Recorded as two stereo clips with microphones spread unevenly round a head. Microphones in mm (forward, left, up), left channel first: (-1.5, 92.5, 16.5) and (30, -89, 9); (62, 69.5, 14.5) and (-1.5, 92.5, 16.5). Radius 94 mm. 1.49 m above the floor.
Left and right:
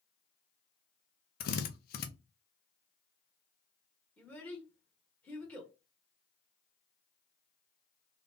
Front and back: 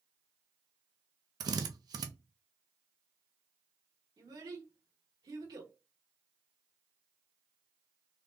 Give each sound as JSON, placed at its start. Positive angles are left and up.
{"t": 1.4, "sound": "a drill", "azimuth_deg": 140, "distance_m": 0.8}
{"t": 4.2, "sound": "a child speaking", "azimuth_deg": 180, "distance_m": 1.2}